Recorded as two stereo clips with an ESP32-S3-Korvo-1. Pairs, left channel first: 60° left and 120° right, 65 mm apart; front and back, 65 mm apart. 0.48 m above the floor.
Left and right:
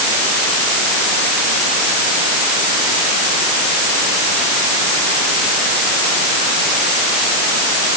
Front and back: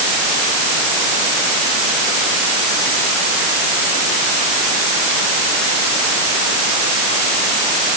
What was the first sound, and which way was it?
Only background noise.